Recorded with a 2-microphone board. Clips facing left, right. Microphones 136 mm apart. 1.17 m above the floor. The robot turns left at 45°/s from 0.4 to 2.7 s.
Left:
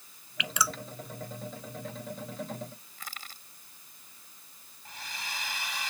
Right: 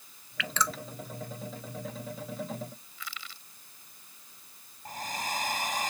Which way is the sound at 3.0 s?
45° left (ahead or behind).